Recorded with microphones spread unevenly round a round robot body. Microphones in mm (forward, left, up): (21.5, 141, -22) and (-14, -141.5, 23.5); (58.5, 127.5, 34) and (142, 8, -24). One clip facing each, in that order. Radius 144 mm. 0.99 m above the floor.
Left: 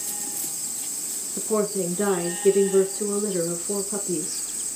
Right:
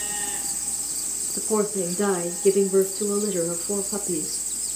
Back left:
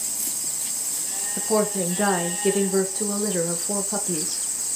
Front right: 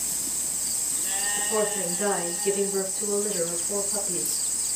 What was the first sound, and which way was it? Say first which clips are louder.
A woman speaking: even, back left 5 dB; 155° left.